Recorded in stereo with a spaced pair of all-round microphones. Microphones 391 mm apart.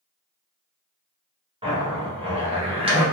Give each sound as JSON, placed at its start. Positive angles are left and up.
{"t": 1.6, "sound": "a zipper", "side_deg": -15, "distance_m": 0.9}